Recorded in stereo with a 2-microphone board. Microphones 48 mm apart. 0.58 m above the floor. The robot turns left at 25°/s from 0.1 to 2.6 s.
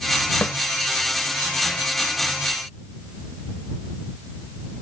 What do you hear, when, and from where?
0.4 s a snare drum: 55° left (ahead or behind)